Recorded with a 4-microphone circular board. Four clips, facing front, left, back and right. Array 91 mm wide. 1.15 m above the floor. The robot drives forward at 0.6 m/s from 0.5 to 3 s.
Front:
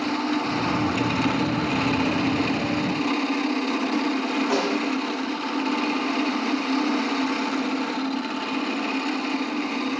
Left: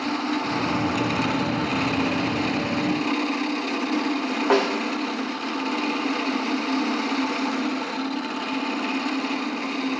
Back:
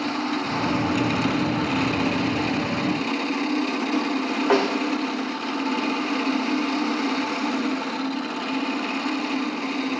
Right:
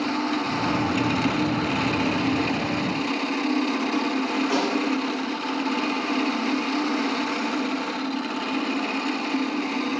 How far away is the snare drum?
About 3.5 m.